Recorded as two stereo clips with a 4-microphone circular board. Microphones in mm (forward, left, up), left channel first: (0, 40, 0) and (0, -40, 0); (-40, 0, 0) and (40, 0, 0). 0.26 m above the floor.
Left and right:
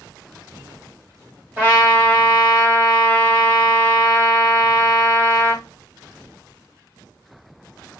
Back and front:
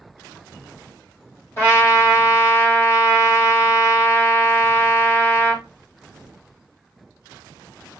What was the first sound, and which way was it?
A trumpet, 145° right.